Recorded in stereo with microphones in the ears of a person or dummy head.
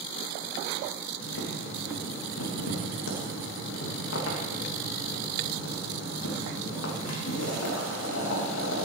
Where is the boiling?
75° left (ahead or behind), 3 m.